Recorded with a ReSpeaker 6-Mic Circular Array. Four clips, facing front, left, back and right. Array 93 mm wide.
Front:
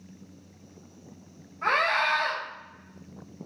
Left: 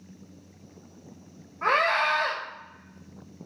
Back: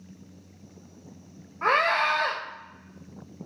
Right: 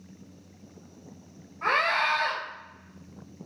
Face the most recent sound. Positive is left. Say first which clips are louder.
# left 2 dB, back 2 dB
turn(degrees=175)